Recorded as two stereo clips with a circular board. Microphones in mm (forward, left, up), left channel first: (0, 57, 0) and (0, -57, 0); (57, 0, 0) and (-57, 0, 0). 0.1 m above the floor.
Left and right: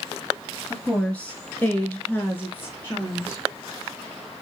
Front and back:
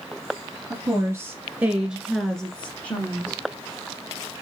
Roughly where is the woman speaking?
Behind.